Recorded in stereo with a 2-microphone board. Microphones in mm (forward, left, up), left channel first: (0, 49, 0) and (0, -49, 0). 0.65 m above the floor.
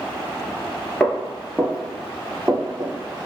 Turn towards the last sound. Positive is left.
turn(degrees=-15)  # may be behind; listen again after turning